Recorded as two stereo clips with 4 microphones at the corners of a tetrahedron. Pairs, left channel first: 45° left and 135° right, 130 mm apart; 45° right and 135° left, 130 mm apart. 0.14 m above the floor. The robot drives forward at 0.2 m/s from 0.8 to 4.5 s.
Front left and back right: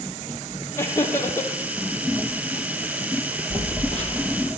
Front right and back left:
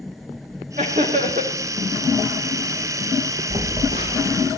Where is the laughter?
115° left, 4 m.